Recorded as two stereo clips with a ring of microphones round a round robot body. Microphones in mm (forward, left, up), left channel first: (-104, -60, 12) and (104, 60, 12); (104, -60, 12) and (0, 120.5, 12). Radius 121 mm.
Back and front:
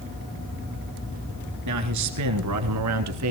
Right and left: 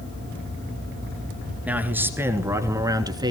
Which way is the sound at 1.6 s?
40° left.